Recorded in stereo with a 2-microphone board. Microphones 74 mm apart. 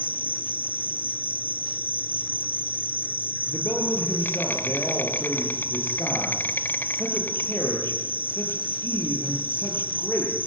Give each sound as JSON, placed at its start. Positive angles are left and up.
{"t": 0.0, "sound": "an insect", "side_deg": 30, "distance_m": 1.2}
{"t": 3.5, "sound": "a man speaking", "side_deg": 35, "distance_m": 8.5}